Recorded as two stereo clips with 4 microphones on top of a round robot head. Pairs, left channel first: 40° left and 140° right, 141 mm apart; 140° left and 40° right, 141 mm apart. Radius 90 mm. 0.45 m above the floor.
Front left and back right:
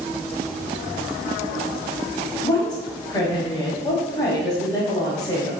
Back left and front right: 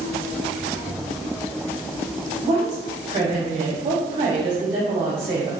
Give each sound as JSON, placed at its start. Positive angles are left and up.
{"t": 2.4, "sound": "a woman speaking", "azimuth_deg": -10, "distance_m": 0.9}